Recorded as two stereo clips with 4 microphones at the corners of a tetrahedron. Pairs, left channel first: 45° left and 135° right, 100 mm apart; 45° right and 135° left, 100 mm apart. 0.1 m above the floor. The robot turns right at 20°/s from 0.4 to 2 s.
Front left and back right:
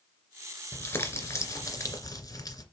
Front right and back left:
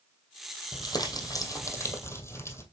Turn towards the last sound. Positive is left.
turn(degrees=5)